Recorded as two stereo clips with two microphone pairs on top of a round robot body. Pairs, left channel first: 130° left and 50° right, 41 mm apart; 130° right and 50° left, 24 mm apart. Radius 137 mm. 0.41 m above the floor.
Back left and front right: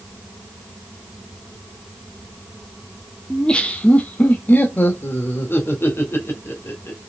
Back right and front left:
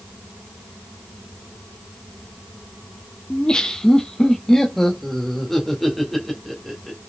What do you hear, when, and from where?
3.3 s laughter: 165° right, 1.1 m; by 7.0 s 140° left, 3 m